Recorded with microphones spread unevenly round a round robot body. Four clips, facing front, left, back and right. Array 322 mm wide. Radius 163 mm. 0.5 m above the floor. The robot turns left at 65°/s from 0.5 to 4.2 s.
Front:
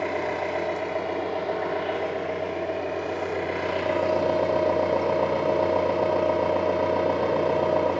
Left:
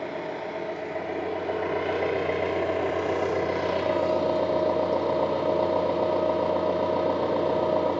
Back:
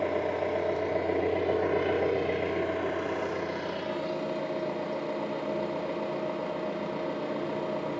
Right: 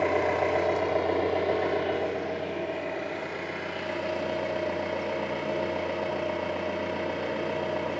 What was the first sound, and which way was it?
An engine running, 90° right.